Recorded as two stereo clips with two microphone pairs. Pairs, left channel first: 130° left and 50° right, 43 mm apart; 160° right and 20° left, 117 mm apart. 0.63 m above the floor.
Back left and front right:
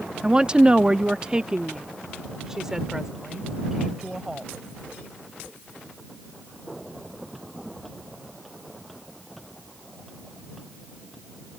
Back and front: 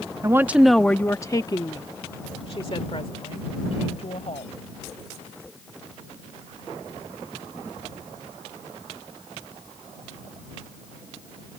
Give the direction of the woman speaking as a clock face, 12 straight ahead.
12 o'clock.